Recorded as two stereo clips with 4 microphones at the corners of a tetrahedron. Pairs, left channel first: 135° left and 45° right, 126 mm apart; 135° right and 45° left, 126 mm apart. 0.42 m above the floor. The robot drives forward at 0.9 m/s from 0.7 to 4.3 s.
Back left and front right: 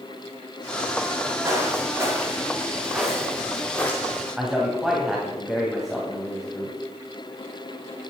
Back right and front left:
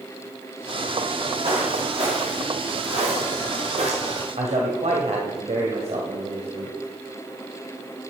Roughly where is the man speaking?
Ahead left.